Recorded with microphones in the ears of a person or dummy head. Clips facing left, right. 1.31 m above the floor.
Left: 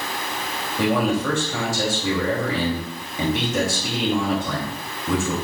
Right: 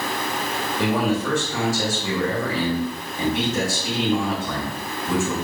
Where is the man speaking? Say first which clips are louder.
Left 1 dB; 65° left (ahead or behind), 3 m.